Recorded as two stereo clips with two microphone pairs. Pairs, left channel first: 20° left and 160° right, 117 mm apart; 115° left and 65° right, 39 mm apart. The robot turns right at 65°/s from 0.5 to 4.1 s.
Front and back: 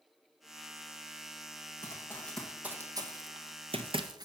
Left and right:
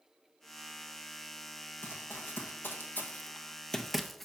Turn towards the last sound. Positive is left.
turn(degrees=-175)